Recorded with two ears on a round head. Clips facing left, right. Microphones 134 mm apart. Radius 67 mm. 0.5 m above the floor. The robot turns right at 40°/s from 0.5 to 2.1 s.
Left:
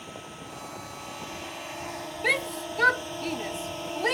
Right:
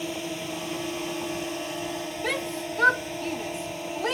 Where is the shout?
5° left (ahead or behind).